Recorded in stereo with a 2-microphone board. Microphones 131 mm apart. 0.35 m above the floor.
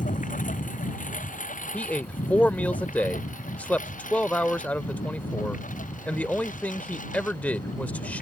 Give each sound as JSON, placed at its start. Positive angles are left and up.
{"t": 0.0, "sound": "a lawn mower", "side_deg": 80}
{"t": 1.7, "sound": "a man speaking", "side_deg": 10}